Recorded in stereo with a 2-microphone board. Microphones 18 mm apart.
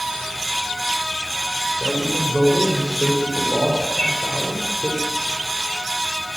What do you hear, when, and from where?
1.8 s a man speaking: 45° left (ahead or behind), 5.5 m; by 4.9 s 70° left (ahead or behind), 6 m
3.9 s a bird: 40° left (ahead or behind), 6 m